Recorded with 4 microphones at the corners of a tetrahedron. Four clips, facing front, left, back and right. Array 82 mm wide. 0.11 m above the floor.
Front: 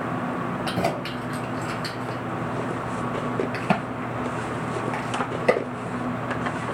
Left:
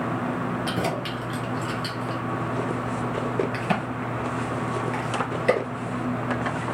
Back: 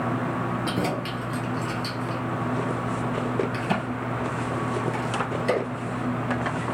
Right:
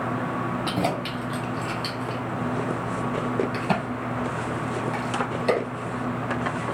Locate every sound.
0.7 s keys jangling: 25° right, 1.7 m; by 2.2 s 10° left, 1.2 m
3.5 s a crack: 10° right, 2 m